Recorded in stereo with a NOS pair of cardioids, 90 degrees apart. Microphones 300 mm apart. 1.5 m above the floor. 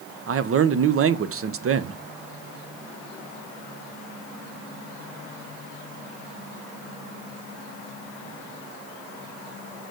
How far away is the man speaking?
About 0.8 m.